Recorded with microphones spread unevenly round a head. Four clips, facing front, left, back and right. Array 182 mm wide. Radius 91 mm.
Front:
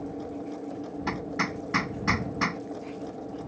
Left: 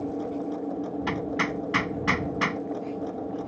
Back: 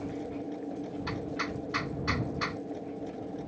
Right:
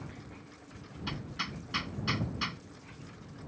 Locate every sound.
0.0 s a machine running: 90° left
1.1 s hammering: 45° left